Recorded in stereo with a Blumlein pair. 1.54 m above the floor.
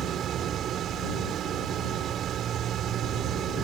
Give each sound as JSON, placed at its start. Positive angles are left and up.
{"t": 0.0, "sound": "a machine running", "azimuth_deg": -30}